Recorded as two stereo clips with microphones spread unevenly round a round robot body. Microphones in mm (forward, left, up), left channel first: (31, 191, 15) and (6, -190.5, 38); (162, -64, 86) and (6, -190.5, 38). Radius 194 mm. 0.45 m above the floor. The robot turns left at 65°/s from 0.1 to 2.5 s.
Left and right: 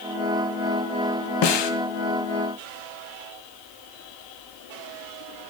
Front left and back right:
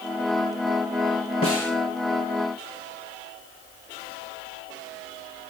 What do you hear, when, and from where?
1.4 s a snare drum: 115° left, 2 m; by 1.7 s 95° left, 2 m